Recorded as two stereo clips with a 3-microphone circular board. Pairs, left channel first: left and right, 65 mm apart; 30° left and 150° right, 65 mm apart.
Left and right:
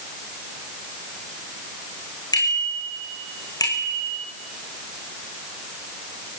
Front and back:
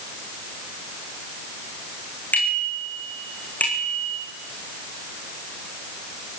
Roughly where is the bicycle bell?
Left.